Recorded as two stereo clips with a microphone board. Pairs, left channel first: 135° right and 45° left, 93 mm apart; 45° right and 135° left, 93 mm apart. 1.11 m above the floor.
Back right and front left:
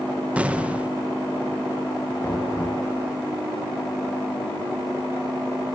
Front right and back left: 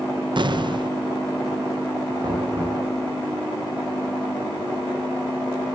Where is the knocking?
170° left, 9.5 m.